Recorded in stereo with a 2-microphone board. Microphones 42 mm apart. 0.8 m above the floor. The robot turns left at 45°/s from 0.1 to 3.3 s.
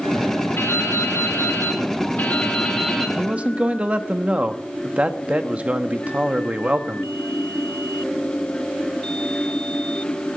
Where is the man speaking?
25° right (ahead or behind), 1.1 m; by 7.1 s 30° right (ahead or behind), 1.1 m.